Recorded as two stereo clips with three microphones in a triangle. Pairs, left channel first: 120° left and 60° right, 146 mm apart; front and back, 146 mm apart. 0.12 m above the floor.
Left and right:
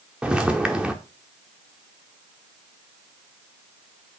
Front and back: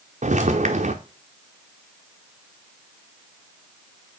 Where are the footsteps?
145° right, 0.9 m.